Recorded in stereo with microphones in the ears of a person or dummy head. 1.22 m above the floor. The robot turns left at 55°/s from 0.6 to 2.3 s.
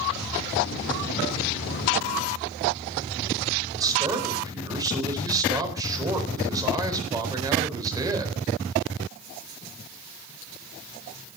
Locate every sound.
3.7 s a man speaking: 20° right (ahead or behind), 4 m